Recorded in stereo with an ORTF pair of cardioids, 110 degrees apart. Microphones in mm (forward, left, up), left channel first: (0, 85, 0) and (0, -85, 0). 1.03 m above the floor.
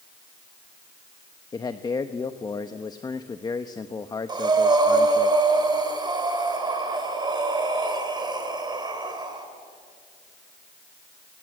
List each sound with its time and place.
1.5 s a man speaking: 20° left, 1.0 m
4.3 s breathing: 25° right, 4.5 m